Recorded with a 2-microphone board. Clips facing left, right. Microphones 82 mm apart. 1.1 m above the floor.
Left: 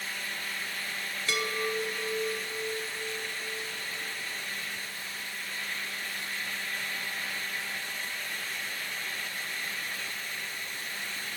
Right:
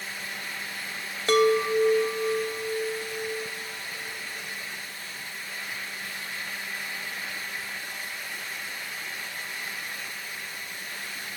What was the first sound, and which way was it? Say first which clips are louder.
A chime: right 12 dB; 50° right (ahead or behind).